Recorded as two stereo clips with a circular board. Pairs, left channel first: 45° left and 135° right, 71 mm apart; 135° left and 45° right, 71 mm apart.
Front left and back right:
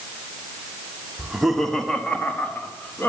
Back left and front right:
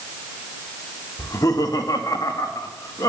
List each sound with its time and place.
1.2 s laughter: 150° left, 1.4 m; by 3.1 s 105° left, 2.5 m